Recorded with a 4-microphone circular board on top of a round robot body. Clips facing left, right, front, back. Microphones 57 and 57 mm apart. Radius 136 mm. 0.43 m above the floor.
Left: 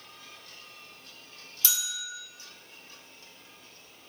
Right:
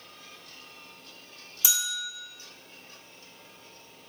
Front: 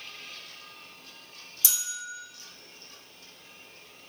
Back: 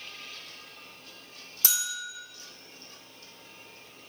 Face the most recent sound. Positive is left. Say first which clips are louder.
# right 3 dB, back 4 dB
turn(degrees=-160)